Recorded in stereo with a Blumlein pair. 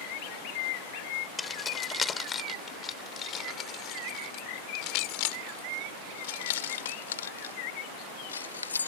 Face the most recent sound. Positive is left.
turn(degrees=75)